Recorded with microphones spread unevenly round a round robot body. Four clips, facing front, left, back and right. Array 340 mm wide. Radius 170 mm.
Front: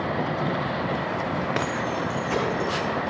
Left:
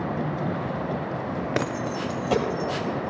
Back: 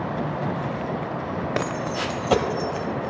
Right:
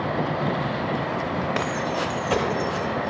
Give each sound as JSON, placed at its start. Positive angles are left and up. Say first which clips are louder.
{"t": 1.6, "sound": "keys jangling", "louder": "right 2 dB, even", "azimuth_deg": 120, "distance_m": 0.5}